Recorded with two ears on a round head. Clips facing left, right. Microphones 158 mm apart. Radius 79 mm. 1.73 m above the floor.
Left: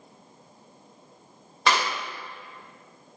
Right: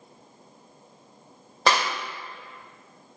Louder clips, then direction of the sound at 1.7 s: Right 1 dB; 30° right (ahead or behind).